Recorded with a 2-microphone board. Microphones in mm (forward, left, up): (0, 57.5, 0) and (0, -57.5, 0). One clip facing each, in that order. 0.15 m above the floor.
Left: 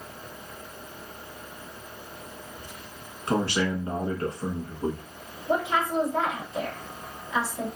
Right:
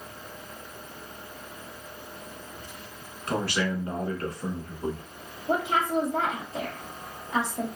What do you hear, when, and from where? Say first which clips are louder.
3.3 s a man speaking: left 2 dB; 25° left (ahead or behind), 1.2 m
5.5 s a woman speaking: even; 50° right (ahead or behind), 2.5 m